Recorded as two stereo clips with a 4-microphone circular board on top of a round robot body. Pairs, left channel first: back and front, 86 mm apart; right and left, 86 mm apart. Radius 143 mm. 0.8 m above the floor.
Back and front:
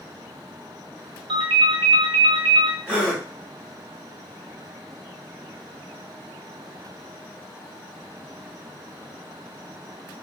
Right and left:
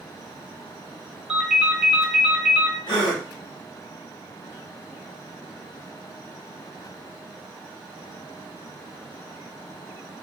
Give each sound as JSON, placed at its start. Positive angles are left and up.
{"t": 1.3, "sound": "a ringtone", "azimuth_deg": 10, "distance_m": 0.5}
{"t": 2.9, "sound": "a gasp", "azimuth_deg": -75, "distance_m": 1.6}